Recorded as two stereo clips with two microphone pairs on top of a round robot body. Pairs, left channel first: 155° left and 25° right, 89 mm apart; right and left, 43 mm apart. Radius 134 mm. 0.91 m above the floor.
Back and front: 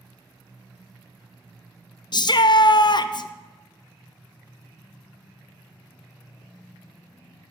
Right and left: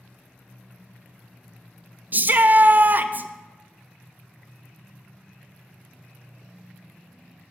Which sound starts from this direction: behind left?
A shout, at 2.1 s.